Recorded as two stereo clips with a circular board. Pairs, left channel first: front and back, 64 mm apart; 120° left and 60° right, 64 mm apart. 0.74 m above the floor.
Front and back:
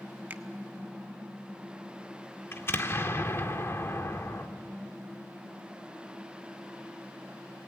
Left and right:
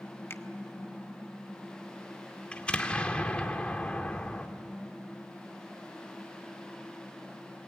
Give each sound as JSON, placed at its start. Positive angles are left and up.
{"t": 0.3, "sound": "a finger snap", "azimuth_deg": 135, "distance_m": 1.1}
{"t": 2.5, "sound": "an explosion", "azimuth_deg": 45, "distance_m": 1.7}